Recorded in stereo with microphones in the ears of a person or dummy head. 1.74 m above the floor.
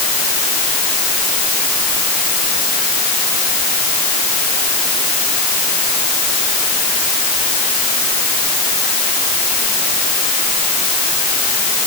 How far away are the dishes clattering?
No dishes clattering in this recording.